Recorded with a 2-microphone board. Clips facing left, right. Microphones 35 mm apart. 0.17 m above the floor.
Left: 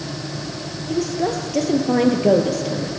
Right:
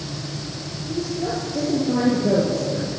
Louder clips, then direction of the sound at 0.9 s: Left 4 dB; 65° left (ahead or behind).